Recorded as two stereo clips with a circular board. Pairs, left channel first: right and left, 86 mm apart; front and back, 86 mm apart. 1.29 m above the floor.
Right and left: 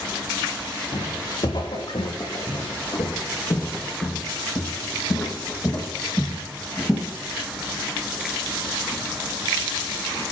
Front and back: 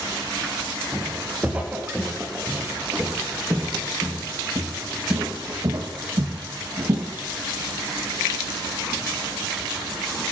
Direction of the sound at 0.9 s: 105° right.